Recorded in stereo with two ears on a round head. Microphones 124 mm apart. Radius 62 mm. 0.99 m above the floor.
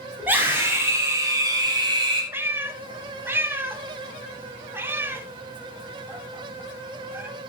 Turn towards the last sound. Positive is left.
turn(degrees=-15)  # may be behind; listen again after turning